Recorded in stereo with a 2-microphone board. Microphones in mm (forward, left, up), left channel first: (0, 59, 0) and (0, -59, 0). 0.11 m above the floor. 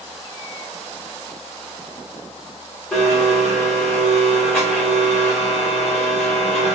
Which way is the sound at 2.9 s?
5° left (ahead or behind).